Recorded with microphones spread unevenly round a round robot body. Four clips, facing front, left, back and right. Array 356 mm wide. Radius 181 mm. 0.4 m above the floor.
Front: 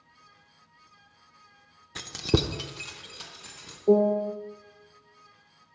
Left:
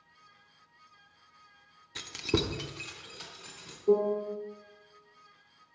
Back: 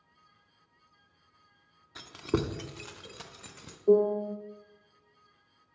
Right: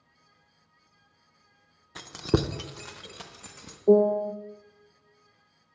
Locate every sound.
1.9 s keys jangling: 5° left, 0.6 m; by 3.8 s 140° right, 1.3 m
3.9 s a piano: 80° right, 0.5 m